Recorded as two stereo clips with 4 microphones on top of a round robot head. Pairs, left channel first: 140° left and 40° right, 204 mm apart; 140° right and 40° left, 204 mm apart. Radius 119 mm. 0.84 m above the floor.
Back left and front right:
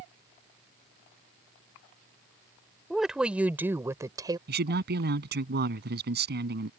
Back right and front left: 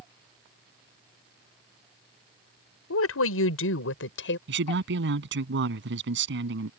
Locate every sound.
2.9 s a woman speaking: 130° right; by 4.4 s 110° right
4.5 s a man speaking: 5° left